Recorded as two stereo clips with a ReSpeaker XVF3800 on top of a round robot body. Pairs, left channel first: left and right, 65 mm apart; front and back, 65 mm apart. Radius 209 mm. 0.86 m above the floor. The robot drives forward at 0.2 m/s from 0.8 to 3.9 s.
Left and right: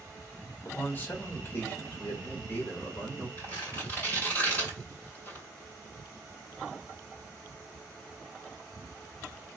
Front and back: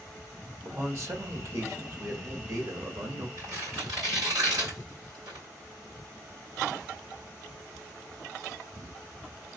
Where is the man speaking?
145° left, 1.7 m; by 3.3 s 155° left, 2 m.